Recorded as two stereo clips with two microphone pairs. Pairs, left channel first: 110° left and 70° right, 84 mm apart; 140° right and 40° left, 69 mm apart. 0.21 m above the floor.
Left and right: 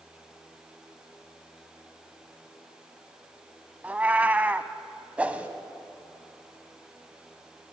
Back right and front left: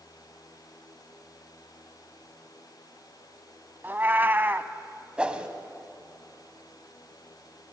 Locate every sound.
3.8 s a cat meowing: 5° right, 0.8 m
5.2 s a whoosh: 15° right, 1.4 m